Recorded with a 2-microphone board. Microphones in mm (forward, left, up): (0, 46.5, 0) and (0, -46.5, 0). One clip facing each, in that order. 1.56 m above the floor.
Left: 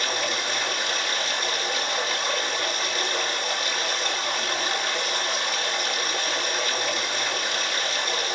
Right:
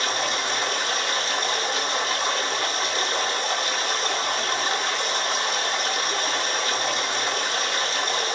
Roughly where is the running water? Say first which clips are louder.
Right 2 dB; right.